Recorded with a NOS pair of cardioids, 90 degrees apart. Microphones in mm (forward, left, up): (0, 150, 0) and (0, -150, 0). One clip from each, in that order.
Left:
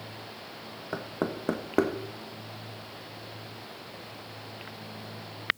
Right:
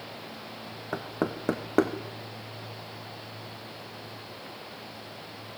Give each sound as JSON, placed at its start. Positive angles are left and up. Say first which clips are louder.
{"t": 0.9, "sound": "knocking", "louder": "right 1 dB", "azimuth_deg": -10, "distance_m": 1.0}